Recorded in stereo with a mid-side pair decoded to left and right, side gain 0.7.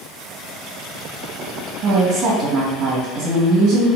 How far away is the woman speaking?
About 1.9 m.